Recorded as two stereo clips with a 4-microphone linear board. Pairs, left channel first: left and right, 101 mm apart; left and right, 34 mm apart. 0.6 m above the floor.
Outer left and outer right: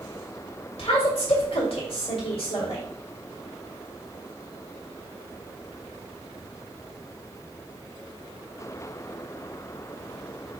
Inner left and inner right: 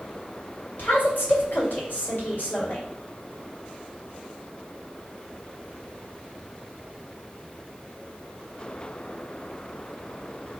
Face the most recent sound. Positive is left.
turn(degrees=70)  # may be behind; listen again after turning